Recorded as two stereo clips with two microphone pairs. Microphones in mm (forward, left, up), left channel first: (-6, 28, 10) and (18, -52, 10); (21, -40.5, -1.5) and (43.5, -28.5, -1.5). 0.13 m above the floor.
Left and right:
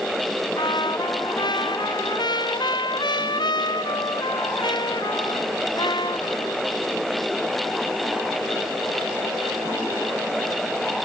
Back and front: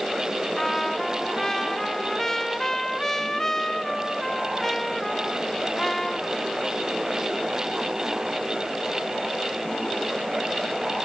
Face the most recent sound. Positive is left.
turn(degrees=135)